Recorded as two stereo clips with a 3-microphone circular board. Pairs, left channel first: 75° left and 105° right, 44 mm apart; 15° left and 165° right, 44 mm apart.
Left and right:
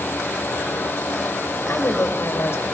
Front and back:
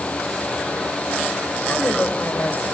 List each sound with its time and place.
1.7 s a woman speaking: 60° left, 6 m